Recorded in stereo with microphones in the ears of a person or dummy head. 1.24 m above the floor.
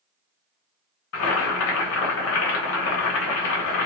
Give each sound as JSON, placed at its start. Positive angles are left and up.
{"t": 1.1, "sound": "boiling", "side_deg": 75, "distance_m": 0.9}